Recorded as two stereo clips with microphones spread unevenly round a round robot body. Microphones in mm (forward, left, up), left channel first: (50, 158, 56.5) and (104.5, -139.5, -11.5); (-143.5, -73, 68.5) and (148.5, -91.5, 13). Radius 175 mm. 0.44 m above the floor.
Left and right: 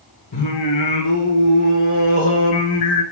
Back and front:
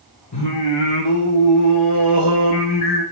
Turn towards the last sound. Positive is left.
turn(degrees=135)